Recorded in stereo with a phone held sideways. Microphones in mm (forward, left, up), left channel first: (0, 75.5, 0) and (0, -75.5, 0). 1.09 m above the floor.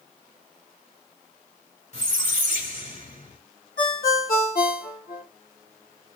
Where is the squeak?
50° left (ahead or behind), 1.3 m.